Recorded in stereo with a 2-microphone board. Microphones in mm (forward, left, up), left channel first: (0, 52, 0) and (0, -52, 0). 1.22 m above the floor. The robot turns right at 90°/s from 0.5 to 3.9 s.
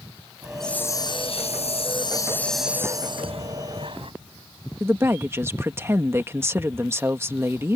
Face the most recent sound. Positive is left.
turn(degrees=-25)  # may be behind; listen again after turning